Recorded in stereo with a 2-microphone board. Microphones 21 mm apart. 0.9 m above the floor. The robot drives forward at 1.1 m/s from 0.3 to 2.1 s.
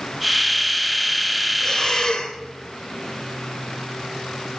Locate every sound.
1.6 s breathing: 40° left (ahead or behind), 2.5 m; by 2.4 s 50° left (ahead or behind), 2.5 m